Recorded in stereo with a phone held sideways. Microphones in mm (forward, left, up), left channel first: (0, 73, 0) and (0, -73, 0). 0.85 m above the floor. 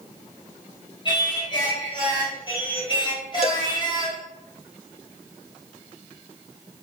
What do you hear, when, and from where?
1.1 s singing: 35° left (ahead or behind), 4 m
3.4 s a cowbell: 45° left (ahead or behind), 0.6 m